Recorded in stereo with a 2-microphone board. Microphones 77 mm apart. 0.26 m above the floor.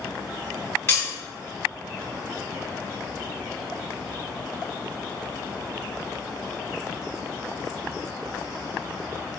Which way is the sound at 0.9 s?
35° left (ahead or behind).